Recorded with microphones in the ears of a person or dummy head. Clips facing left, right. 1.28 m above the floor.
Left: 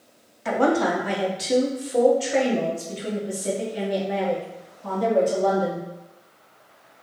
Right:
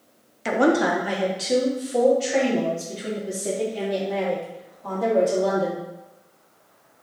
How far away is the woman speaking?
About 0.5 m.